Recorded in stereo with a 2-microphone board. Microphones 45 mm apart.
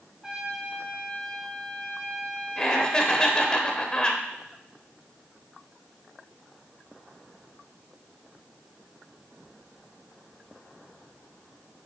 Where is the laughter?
20° left (ahead or behind), 1.1 m.